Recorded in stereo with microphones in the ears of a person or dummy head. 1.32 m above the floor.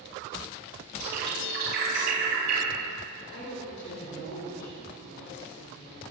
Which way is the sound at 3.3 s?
70° left (ahead or behind).